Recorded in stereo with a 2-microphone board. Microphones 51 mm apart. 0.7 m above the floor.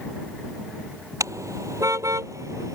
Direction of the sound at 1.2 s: 80° right.